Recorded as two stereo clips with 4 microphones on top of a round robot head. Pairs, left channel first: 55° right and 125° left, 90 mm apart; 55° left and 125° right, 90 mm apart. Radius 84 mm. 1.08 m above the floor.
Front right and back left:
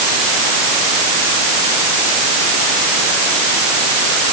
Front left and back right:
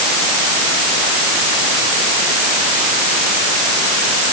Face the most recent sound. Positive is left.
No sound to turn to.